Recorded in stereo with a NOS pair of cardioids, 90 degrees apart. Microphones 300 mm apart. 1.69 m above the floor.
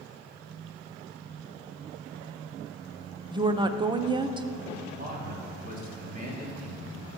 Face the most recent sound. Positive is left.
turn(degrees=-30)